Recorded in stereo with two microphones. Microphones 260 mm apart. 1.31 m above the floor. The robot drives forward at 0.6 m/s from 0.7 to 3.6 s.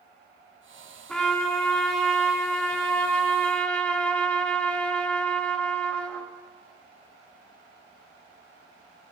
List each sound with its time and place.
1.1 s a trumpet: 5° left (ahead or behind), 4 m